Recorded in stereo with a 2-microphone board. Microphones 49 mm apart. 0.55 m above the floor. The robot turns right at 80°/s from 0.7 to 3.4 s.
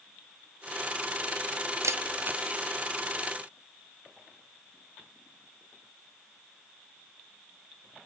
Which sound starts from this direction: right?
A camera shutter, at 1.8 s.